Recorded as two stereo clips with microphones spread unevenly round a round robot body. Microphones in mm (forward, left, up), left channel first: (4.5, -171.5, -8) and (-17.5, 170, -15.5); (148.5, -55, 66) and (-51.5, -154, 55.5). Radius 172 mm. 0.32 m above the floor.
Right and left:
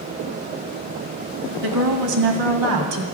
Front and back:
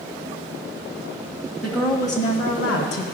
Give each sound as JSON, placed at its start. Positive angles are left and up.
{"t": 1.6, "sound": "a woman speaking", "azimuth_deg": 115, "distance_m": 1.8}